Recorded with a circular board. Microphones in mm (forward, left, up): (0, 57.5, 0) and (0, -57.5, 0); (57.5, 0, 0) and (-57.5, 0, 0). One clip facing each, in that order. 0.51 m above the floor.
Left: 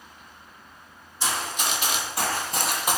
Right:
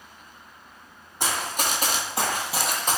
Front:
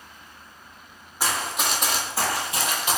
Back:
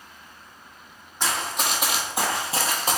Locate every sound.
1.2 s running footsteps: 80° right, 0.9 m; by 3.0 s 160° left, 0.7 m